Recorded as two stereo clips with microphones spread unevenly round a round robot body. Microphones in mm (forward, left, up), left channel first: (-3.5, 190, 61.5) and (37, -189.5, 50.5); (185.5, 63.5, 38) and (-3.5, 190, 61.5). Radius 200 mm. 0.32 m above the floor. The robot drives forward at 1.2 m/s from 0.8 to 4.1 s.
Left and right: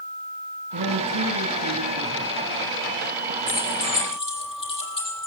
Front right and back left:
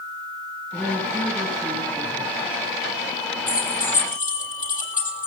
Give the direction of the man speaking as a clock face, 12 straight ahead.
4 o'clock.